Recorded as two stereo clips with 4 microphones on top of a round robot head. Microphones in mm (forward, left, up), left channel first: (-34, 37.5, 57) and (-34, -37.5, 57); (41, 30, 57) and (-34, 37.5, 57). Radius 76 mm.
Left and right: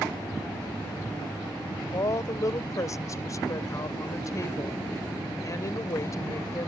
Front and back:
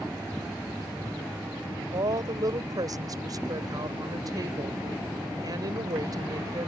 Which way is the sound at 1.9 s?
135° left.